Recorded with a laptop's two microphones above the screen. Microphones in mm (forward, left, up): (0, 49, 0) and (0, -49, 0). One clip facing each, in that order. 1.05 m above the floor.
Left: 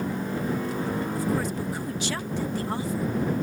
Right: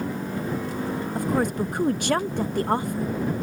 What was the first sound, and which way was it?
A woman speaking, 55° right (ahead or behind).